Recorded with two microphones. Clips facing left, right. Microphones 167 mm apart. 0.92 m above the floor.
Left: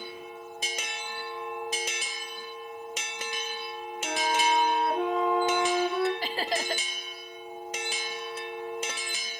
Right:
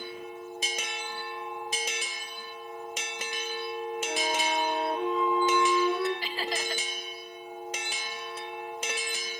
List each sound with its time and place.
4.0 s a flute: 75° left (ahead or behind), 2 m
6.2 s laughter: 45° left (ahead or behind), 1.0 m